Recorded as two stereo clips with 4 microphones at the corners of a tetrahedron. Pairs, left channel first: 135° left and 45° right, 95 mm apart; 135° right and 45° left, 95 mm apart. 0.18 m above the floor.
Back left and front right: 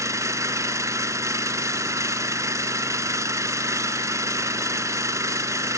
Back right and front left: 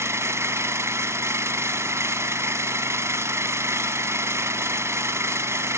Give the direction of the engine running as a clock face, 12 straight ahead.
12 o'clock.